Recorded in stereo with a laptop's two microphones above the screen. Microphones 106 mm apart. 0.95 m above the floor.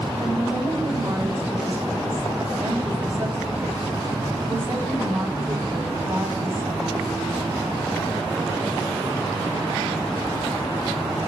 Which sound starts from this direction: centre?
A woman speaking, at 0.2 s.